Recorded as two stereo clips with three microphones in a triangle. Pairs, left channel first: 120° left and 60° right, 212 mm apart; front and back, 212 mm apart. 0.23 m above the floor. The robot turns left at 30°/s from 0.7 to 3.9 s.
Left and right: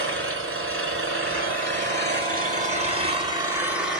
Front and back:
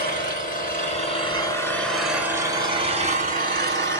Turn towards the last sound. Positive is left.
turn(degrees=-145)